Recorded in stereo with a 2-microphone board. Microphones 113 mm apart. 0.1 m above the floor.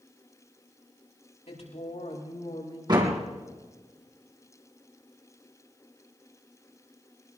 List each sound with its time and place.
1.5 s a woman speaking: 75° left (ahead or behind), 6.5 m; by 2.8 s 70° left (ahead or behind), 6.5 m
2.9 s a door slam: 40° right (ahead or behind), 3.5 m